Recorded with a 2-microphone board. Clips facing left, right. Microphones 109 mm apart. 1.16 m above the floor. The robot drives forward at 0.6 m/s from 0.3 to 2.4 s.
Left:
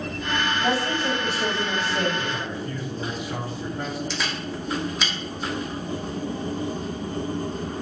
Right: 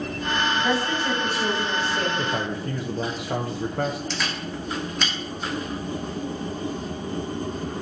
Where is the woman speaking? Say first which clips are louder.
Even; 35° left (ahead or behind), 5 m; by 2.1 s 30° left (ahead or behind), 5.5 m.